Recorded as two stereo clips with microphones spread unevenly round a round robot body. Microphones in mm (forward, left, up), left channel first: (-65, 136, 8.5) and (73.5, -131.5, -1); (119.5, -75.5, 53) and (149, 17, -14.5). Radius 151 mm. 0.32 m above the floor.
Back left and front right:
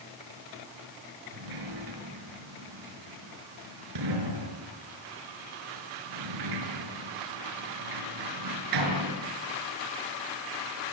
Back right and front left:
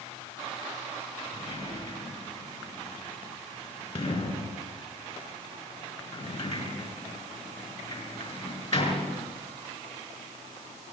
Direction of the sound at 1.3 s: 75° right.